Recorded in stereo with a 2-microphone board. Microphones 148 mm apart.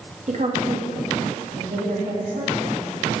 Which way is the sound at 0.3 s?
55° right (ahead or behind).